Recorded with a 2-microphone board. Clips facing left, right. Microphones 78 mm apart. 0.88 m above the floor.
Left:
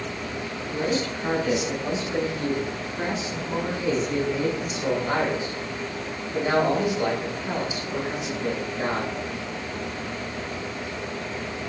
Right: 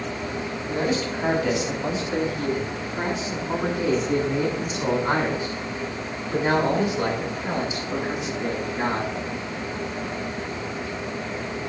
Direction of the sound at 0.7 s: 85° right.